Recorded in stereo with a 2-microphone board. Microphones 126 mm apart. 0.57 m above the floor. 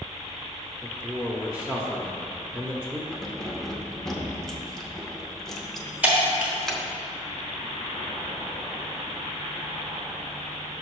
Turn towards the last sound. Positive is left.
turn(degrees=-10)  # may be behind; listen again after turning